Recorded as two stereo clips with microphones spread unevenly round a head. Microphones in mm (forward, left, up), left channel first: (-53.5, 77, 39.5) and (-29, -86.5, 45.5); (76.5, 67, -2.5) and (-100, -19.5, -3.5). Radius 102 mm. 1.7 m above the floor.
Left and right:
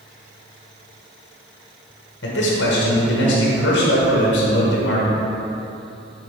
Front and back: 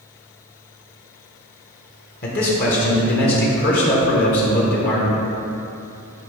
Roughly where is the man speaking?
Ahead left.